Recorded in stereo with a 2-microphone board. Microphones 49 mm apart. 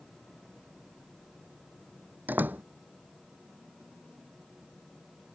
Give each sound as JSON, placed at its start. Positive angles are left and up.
{"t": 2.3, "sound": "a door slam", "side_deg": -40}